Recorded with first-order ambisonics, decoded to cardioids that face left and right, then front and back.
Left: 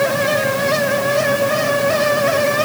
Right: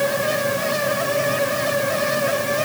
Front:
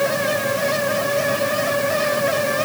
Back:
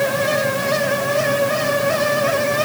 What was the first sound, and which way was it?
Only background noise.